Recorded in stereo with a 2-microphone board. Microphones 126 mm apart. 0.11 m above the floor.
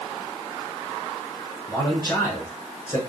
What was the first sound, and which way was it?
A man speaking, 25° left (ahead or behind).